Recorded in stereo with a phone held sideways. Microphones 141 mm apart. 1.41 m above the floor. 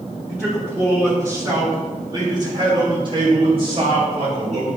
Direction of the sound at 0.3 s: 5° right (ahead or behind).